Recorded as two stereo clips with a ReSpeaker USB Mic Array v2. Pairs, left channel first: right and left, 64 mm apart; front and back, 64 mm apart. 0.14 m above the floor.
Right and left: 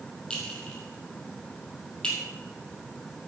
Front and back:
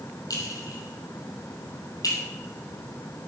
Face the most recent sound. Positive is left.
turn(degrees=-15)